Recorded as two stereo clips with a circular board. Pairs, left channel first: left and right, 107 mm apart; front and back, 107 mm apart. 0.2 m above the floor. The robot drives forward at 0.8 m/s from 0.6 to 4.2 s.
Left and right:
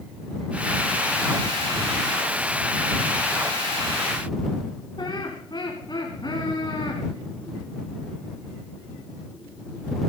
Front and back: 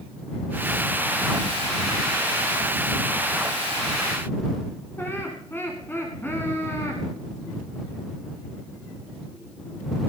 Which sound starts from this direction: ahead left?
Laughter, at 5.0 s.